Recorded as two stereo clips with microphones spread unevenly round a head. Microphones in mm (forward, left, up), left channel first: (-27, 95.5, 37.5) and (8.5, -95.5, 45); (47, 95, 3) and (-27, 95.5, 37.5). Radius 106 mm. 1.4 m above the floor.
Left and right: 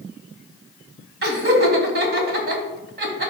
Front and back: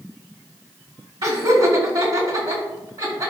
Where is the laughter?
115° right, 2 m.